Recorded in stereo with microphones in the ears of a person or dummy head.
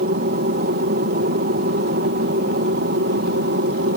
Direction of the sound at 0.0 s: 40° right (ahead or behind).